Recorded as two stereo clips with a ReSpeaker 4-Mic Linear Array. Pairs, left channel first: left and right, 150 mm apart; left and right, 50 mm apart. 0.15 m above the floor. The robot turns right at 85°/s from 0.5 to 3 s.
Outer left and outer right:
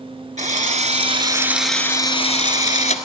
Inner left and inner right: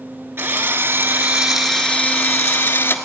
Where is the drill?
100° right, 1.4 m; by 3.0 s 110° left, 1.4 m.